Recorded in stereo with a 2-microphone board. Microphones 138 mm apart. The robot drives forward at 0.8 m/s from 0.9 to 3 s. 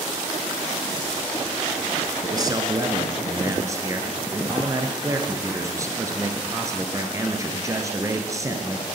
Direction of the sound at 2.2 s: 30° right (ahead or behind).